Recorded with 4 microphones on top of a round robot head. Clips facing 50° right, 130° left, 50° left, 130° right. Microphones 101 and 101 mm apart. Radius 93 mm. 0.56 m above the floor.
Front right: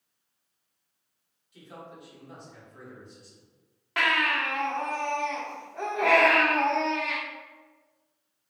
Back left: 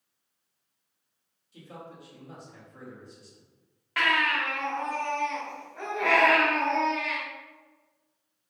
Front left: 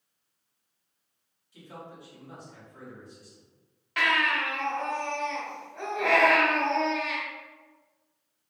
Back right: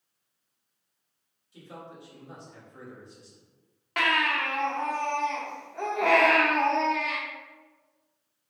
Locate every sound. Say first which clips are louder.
1.5 s a man speaking: even, even; 170° left, 2.0 m
4.0 s a baby crying: even, even; 110° right, 1.3 m